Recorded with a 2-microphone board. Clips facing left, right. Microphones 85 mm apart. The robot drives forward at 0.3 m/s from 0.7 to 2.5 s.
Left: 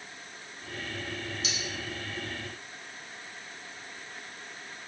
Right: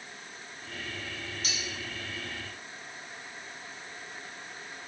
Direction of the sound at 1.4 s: 45° right (ahead or behind).